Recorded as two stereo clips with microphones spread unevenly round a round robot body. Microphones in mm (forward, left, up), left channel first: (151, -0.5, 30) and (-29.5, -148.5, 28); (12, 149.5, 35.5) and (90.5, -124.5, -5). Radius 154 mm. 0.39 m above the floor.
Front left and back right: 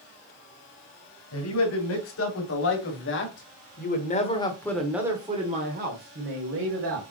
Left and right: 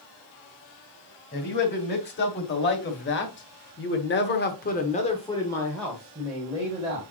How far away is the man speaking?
About 3.5 m.